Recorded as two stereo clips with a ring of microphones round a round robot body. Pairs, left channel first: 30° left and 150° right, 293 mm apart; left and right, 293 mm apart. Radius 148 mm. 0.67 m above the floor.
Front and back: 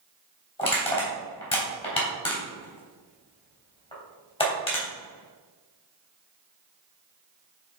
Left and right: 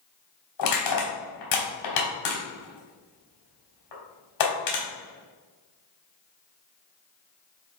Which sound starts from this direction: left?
Crushing, at 0.6 s.